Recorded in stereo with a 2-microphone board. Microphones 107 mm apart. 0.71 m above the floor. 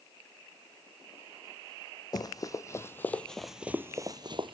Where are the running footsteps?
35° left (ahead or behind), 1.9 m; by 4.5 s 55° right (ahead or behind), 1.2 m.